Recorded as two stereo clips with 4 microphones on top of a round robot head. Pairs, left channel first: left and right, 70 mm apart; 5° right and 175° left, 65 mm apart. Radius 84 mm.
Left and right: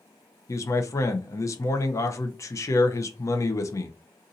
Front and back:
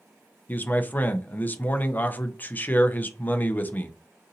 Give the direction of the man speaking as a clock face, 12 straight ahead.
10 o'clock.